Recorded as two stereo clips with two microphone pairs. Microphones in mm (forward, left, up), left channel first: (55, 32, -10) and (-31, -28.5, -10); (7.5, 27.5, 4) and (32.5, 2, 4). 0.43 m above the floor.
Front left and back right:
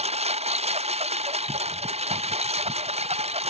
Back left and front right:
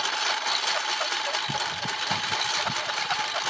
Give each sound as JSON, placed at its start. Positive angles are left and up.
{"t": 0.0, "sound": "a lawn mower", "azimuth_deg": -140}